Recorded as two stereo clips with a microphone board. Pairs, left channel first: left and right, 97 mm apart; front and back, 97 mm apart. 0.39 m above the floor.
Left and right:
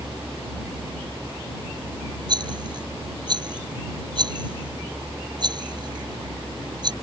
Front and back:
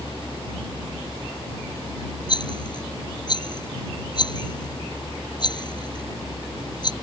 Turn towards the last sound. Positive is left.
turn(degrees=-45)